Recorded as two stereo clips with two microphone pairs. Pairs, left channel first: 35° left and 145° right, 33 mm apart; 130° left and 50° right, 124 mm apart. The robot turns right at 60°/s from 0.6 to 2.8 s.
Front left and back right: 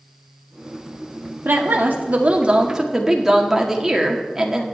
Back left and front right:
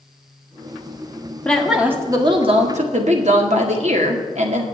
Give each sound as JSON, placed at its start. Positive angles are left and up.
{"t": 1.4, "sound": "a woman speaking", "azimuth_deg": -150, "distance_m": 1.6}